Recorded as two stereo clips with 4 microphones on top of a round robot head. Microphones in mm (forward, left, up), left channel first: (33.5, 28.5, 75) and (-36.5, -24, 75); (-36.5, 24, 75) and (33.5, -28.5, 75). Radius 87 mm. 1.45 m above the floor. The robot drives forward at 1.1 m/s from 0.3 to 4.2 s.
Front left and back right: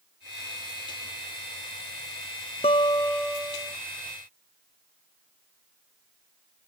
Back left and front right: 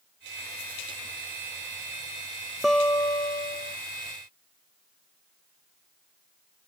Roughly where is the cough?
No cough in this recording.